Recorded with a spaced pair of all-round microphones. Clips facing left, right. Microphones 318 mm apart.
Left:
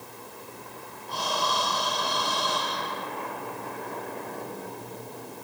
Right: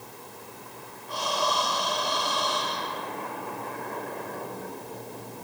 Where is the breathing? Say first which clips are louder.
Right 2 dB; 55° left (ahead or behind), 6 m.